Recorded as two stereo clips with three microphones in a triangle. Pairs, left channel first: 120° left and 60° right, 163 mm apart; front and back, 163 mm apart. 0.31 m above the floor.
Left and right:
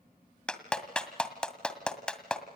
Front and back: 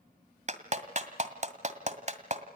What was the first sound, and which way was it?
A clap, 155° right.